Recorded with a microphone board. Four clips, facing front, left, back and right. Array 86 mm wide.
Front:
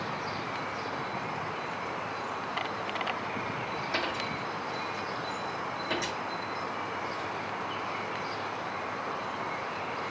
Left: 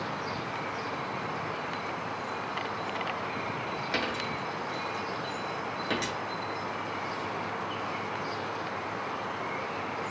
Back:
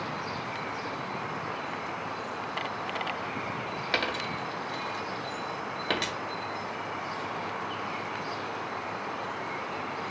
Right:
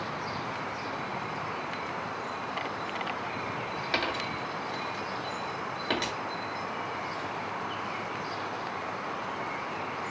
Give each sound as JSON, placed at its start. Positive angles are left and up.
{"t": 3.9, "sound": "a dropped coin", "azimuth_deg": -155, "distance_m": 0.8}